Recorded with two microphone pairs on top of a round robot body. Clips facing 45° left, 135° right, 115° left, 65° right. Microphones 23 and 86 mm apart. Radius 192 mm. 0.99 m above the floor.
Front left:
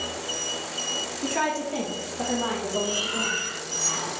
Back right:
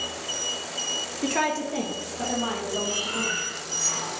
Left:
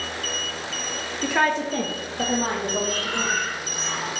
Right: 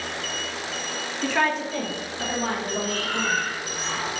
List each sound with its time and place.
1.2 s a woman speaking: 165° right, 0.8 m; by 3.4 s 85° left, 2 m
2.8 s breathing: 20° left, 1.8 m